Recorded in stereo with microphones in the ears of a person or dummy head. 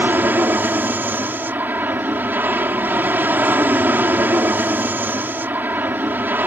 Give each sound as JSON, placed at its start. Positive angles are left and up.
{"t": 0.0, "sound": "an aircraft", "side_deg": -10}